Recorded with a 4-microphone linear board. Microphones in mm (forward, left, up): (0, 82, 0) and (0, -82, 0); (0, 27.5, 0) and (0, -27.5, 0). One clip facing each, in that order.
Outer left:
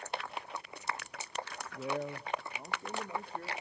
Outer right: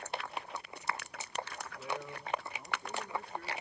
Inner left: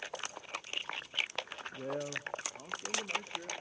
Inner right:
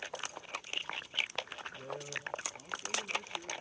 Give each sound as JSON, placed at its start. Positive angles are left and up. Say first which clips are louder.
{"t": 1.7, "sound": "a man speaking", "louder": "outer left 5 dB, inner left 6 dB", "side_deg": 40, "distance_m": 1.0}